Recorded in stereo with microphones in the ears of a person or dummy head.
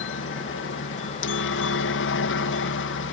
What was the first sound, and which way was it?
A helicopter, 65° left (ahead or behind).